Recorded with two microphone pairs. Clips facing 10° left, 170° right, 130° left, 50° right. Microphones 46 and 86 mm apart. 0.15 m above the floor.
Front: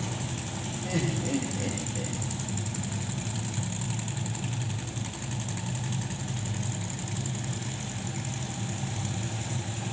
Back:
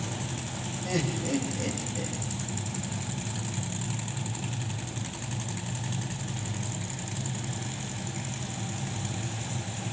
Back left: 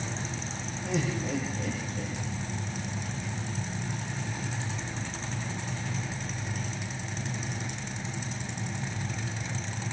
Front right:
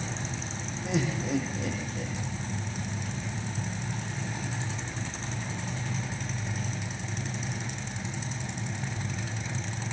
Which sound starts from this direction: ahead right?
Laughter, at 0.8 s.